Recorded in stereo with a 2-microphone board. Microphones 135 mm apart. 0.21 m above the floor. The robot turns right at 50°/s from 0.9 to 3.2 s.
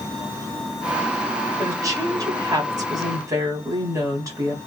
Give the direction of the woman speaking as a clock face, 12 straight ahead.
5 o'clock.